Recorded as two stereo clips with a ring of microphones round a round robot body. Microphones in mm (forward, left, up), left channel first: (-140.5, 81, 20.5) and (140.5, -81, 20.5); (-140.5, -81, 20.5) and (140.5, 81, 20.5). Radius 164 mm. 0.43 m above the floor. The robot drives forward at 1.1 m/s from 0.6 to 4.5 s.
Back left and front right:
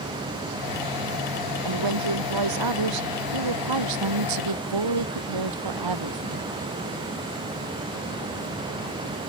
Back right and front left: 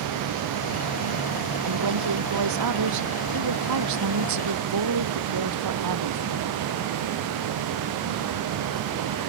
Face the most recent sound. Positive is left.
turn(degrees=-10)